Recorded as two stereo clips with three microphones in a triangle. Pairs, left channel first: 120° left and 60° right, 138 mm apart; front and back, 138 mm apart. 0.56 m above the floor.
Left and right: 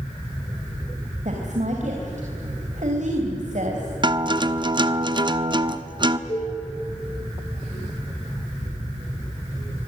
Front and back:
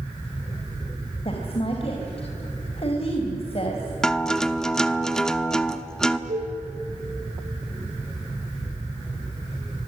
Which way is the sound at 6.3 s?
170° left.